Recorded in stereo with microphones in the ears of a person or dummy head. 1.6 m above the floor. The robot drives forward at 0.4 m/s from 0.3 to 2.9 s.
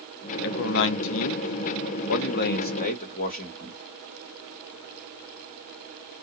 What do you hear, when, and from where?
0.4 s a man speaking: 45° left (ahead or behind), 0.7 m